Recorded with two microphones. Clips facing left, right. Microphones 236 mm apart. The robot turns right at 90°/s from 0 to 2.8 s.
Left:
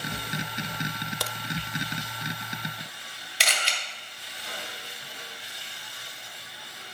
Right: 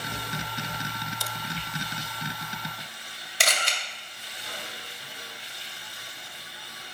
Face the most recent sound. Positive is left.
turn(degrees=-50)  # may be behind; listen again after turning